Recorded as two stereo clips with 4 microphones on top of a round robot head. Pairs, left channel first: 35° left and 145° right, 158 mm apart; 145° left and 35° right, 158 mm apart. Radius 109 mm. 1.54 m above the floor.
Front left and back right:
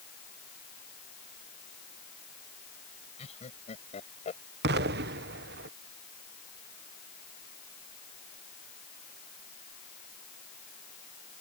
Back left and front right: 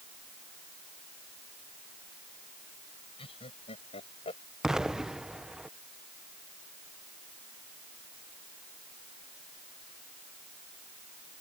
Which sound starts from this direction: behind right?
An explosion, at 4.6 s.